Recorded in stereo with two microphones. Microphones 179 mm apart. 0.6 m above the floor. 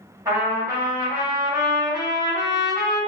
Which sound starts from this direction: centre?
A trumpet, at 0.2 s.